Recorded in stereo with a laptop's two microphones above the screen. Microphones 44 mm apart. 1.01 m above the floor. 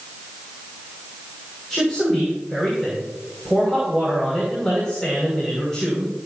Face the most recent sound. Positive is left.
turn(degrees=15)  # may be behind; listen again after turning